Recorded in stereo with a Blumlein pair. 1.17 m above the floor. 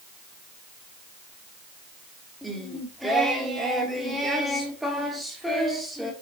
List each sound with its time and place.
2.4 s singing: straight ahead, 1.7 m